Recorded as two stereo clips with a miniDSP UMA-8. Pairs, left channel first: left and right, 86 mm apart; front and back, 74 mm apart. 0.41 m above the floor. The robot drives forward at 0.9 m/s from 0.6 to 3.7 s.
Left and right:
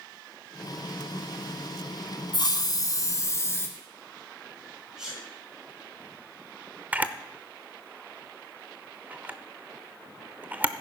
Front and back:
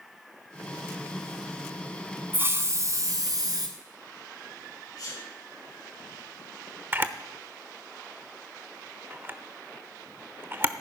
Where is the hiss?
115° left, 1.2 m; by 3.7 s 150° left, 2 m.